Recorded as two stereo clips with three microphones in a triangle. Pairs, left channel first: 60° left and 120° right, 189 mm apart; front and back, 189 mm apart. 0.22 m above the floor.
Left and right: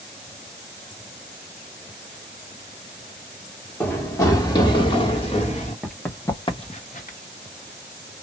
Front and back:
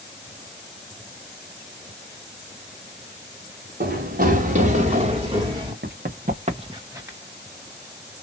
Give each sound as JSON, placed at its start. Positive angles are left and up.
{"t": 3.8, "sound": "running footsteps", "azimuth_deg": 140, "distance_m": 1.7}
{"t": 5.8, "sound": "running footsteps", "azimuth_deg": 155, "distance_m": 1.2}